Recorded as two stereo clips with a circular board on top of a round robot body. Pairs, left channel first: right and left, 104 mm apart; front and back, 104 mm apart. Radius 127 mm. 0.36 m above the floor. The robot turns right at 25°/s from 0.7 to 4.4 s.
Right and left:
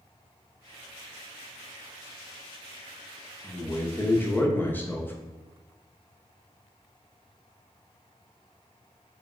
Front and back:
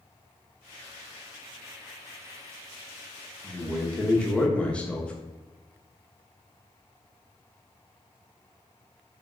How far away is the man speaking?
About 0.8 m.